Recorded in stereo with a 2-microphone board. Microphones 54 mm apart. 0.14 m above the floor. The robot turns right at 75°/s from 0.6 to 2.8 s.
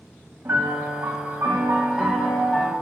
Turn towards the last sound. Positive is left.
turn(degrees=40)